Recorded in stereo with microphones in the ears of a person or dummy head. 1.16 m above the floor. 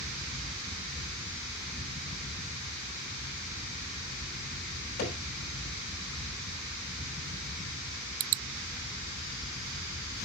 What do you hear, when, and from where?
0.0 s a fan: 25° left (ahead or behind), 1.9 m
5.0 s hammering: 50° left (ahead or behind), 6 m